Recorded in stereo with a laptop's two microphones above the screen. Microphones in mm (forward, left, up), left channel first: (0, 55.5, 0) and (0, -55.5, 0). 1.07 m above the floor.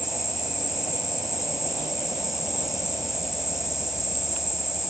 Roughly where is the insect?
Centre.